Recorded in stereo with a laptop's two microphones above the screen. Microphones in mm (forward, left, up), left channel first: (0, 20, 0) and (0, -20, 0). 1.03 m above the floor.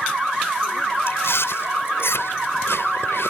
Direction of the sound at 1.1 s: 80° left.